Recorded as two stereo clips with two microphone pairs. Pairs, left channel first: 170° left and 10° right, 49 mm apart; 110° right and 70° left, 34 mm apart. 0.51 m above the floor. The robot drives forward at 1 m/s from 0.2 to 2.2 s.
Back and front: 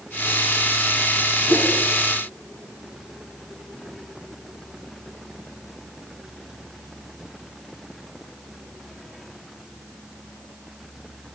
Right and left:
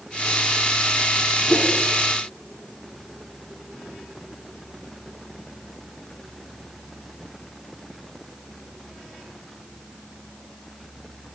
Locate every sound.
1.5 s a whoosh: 140° right, 3 m